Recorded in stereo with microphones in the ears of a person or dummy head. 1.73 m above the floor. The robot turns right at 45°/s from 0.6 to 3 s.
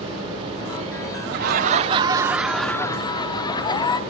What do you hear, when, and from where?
1.2 s laughter: 55° right, 0.7 m; by 4.0 s 25° left, 0.7 m